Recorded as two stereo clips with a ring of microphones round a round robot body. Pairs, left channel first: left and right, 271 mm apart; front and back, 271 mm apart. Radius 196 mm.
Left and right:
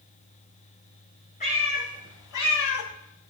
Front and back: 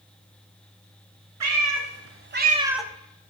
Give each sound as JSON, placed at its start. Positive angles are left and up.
{"t": 1.4, "sound": "a cat meowing", "azimuth_deg": 160, "distance_m": 2.0}